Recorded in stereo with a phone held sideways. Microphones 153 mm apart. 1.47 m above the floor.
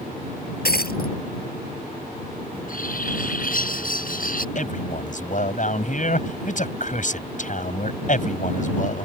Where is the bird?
65° left (ahead or behind).